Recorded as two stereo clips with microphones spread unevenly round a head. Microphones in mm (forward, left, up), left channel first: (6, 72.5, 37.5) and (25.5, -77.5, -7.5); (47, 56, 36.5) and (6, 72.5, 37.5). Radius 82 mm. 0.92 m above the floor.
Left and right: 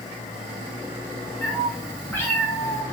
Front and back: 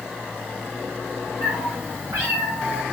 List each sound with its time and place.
1.4 s a cat meowing: 175° left, 3 m; by 2.8 s 160° left, 2 m